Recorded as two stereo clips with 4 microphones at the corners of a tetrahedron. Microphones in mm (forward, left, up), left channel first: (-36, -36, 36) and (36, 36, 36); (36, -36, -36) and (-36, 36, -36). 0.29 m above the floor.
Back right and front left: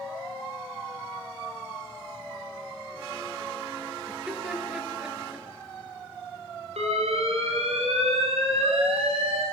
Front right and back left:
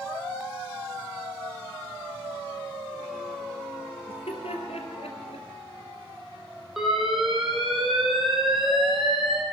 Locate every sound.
4.1 s laughter: 45° right, 4.5 m; by 5.5 s 30° right, 4 m
6.8 s an alarm: 45° left, 5 m